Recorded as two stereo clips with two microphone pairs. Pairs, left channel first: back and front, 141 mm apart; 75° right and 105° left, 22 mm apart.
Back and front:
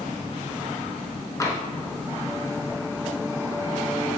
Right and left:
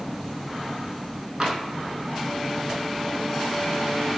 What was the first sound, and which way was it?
Tapping, 135° left.